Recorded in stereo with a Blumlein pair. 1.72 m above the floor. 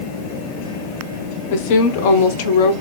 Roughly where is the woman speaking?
Ahead left.